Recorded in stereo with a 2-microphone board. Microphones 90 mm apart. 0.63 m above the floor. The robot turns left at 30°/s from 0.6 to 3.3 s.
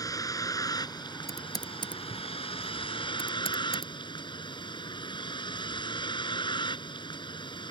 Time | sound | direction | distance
0.0 | a vehicle | 140° left | ?
1.3 | typing on a keyboard | 40° left (ahead or behind) | ?